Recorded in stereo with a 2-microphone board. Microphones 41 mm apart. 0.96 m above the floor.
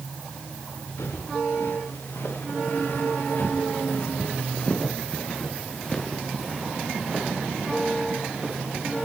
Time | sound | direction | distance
1.0 | footsteps | 80° left | 6.5 m